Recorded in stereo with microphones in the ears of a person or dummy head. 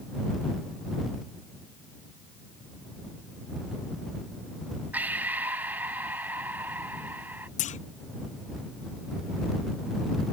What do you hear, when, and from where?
4.9 s breathing: 10° right (ahead or behind)
7.6 s a clunk: 40° left (ahead or behind)